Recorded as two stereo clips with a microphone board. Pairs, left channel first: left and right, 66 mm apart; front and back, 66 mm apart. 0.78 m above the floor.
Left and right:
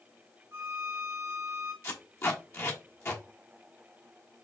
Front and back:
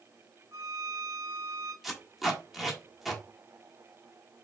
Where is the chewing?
No chewing in this recording.